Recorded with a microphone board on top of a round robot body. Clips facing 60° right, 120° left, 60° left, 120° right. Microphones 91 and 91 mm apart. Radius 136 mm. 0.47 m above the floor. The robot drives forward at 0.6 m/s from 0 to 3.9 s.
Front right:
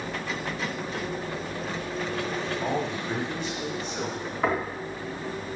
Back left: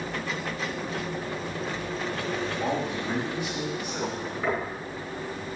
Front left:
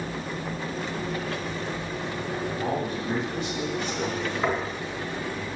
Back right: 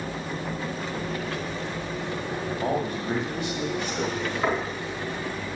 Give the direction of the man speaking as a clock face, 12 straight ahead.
5 o'clock.